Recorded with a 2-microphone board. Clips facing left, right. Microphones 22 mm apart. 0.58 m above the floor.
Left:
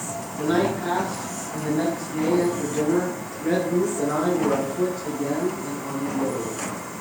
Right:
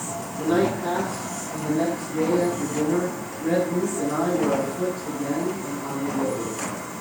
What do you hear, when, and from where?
0.4 s a man speaking: 65° left (ahead or behind), 5.5 m; by 6.7 s 35° left (ahead or behind), 6.5 m